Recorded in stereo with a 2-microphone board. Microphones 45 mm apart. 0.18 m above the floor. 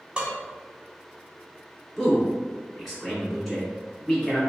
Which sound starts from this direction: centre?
A man speaking, at 2.0 s.